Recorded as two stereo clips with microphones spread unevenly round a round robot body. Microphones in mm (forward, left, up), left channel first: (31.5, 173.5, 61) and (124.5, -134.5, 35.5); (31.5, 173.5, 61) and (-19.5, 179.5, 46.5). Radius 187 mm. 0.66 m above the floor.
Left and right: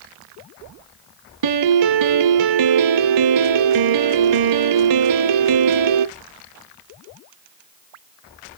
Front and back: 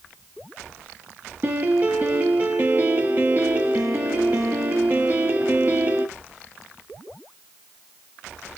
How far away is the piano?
About 0.5 m.